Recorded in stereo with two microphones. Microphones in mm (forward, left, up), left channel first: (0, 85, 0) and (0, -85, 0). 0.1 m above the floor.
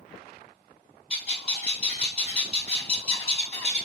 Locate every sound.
1.1 s a bird: 35° left (ahead or behind), 0.9 m